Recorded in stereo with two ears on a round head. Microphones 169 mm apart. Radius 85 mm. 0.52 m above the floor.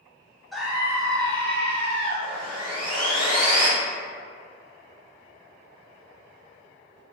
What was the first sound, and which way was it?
A scream, centre (ahead or behind).